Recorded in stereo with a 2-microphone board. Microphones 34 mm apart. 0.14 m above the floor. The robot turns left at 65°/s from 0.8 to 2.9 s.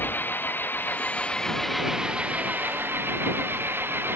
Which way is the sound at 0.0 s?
60° left.